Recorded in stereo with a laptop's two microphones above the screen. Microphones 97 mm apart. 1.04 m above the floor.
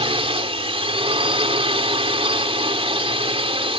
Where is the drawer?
I don't hear a drawer.